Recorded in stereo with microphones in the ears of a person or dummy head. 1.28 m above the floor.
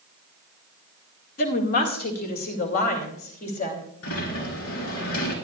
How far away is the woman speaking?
About 1.9 m.